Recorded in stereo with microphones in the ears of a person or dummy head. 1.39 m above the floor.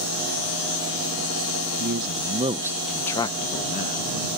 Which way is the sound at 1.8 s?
55° right (ahead or behind).